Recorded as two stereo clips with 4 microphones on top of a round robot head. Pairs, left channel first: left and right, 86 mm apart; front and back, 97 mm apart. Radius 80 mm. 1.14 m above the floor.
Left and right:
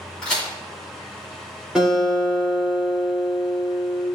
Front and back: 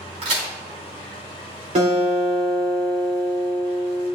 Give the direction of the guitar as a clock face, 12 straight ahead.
6 o'clock.